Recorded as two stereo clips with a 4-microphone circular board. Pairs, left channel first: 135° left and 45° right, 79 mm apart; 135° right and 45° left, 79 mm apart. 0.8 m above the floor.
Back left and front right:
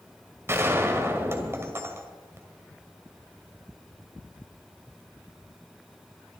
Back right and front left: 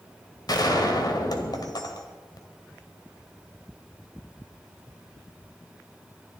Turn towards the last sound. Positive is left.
turn(degrees=-105)